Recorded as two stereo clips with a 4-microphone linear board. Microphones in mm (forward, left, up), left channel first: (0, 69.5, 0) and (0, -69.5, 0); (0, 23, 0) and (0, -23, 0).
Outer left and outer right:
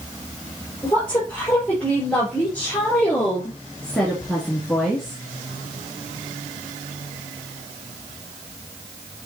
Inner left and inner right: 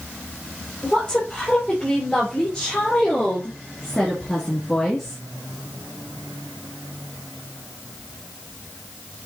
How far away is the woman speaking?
About 4.5 m.